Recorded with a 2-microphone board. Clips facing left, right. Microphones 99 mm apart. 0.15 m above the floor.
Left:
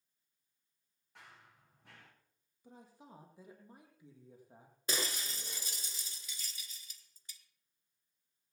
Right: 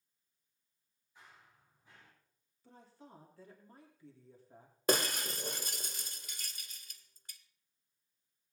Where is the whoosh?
No whoosh in this recording.